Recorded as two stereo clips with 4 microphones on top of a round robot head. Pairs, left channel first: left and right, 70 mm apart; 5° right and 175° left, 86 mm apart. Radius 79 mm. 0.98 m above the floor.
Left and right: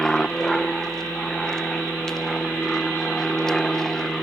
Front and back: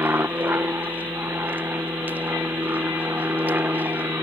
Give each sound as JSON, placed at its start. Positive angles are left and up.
{"t": 0.0, "sound": "an aircraft", "azimuth_deg": 160}